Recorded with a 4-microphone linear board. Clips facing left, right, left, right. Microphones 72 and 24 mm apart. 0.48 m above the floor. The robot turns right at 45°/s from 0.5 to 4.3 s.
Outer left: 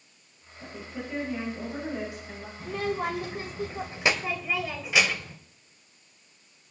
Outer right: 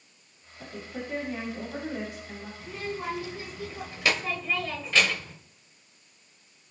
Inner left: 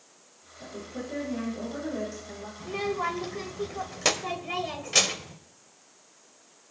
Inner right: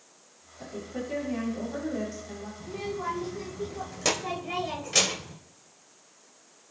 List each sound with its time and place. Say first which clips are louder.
0.6 s a woman speaking: even, inner right 2 dB; 65° right, 9 m; by 2.5 s 20° left, 9 m
2.6 s a child speaking: outer left 6 dB, inner left 4 dB; 90° left, 1.6 m; by 5.4 s 165° left, 1.6 m